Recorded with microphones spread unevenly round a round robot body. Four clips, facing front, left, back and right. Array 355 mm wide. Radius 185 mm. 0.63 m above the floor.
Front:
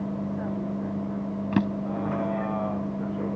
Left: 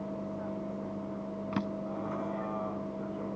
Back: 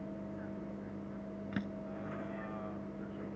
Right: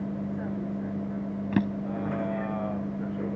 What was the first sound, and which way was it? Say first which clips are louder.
A vehicle: right 4 dB, front 13 dB; 35° right.